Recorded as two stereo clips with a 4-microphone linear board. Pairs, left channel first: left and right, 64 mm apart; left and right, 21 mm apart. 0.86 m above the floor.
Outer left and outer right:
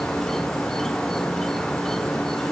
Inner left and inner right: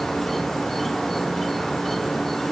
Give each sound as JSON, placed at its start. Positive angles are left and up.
{"t": 0.0, "sound": "an insect", "side_deg": 10}